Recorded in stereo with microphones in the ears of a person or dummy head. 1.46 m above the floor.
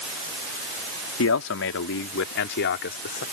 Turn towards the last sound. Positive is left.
turn(degrees=50)  # may be behind; listen again after turning